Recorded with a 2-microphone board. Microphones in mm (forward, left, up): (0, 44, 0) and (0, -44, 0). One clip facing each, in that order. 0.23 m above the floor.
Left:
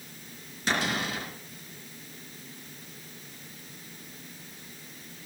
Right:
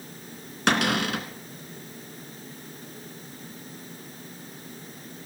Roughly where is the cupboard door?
Right.